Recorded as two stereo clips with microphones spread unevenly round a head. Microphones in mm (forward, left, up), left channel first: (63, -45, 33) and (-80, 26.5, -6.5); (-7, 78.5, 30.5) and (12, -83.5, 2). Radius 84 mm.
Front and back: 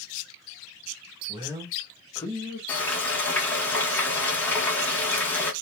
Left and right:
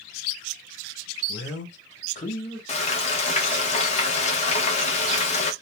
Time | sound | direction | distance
1.3 | a man speaking | 105° left | 1.1 m
2.7 | frying | 50° left | 0.8 m